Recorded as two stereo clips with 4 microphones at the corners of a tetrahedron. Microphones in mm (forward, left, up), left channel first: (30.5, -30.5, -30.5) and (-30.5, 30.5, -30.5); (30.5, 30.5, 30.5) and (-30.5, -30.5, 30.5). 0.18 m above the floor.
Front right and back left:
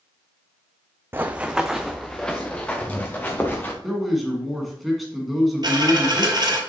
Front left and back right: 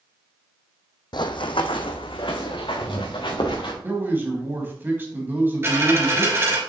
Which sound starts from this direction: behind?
A dropped coin, at 5.6 s.